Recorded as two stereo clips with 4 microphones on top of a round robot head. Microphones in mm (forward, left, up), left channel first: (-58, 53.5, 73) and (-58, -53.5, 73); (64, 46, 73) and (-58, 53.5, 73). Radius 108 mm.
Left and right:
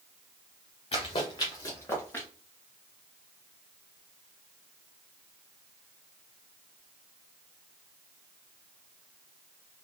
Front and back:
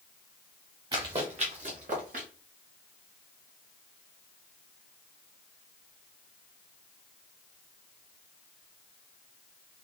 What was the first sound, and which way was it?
Running footsteps, 130° left.